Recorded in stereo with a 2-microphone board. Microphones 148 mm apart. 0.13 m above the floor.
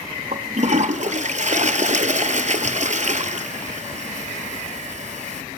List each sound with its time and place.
0.3 s a toilet flushing: 50° right (ahead or behind), 0.8 m